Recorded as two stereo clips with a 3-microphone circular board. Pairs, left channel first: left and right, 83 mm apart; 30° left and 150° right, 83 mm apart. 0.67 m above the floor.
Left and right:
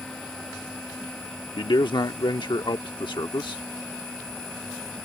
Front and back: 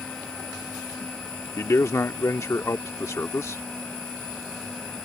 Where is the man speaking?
80° left.